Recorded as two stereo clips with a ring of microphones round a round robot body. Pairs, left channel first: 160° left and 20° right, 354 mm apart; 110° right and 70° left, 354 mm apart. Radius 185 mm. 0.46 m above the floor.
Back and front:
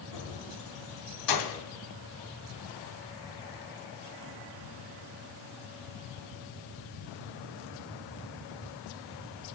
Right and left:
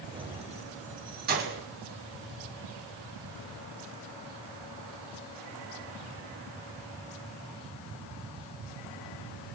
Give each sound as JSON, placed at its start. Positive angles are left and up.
{"t": 0.1, "sound": "keys jangling", "azimuth_deg": 145, "distance_m": 1.6}